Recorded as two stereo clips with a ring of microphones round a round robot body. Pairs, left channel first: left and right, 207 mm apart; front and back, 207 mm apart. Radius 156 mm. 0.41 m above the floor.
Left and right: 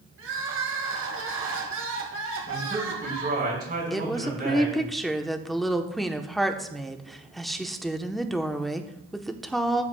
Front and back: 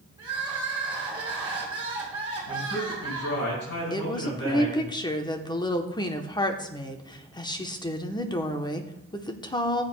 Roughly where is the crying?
Right.